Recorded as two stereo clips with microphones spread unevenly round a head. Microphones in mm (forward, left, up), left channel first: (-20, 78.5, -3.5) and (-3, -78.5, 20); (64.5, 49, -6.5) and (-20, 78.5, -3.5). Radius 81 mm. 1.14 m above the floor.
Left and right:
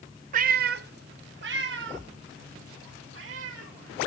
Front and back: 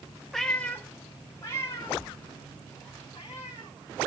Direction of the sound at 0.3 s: 110° right.